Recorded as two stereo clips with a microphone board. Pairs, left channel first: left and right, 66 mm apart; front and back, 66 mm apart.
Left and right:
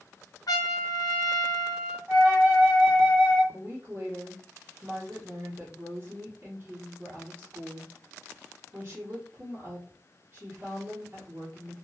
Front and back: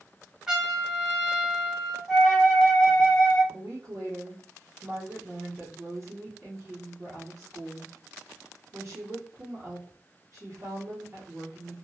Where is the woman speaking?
135° right, 1.2 m.